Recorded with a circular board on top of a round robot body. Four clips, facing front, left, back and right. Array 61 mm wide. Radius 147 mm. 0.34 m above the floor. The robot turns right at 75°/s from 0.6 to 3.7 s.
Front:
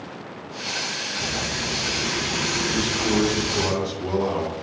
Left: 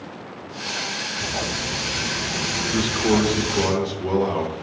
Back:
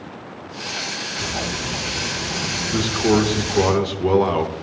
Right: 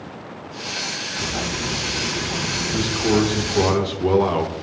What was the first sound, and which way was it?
Frying, 115° right.